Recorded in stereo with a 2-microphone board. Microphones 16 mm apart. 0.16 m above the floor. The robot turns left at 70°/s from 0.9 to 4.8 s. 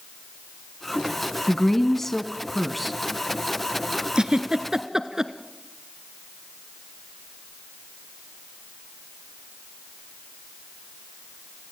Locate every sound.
1.5 s a woman speaking: 20° left (ahead or behind), 1.0 m; by 2.9 s centre (ahead or behind), 1.0 m
4.2 s a giggle: 60° right (ahead or behind), 1.0 m; by 5.3 s 35° right (ahead or behind), 1.0 m